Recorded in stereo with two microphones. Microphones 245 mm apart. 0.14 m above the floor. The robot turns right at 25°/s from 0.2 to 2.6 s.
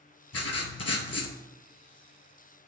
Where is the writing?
75° left (ahead or behind), 0.6 m; by 1.4 s 70° left (ahead or behind), 0.6 m.